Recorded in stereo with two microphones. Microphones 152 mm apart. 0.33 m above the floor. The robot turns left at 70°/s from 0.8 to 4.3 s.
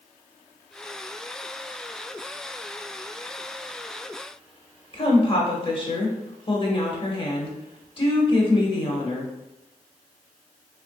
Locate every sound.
4.9 s a woman speaking: 35° left (ahead or behind), 1.0 m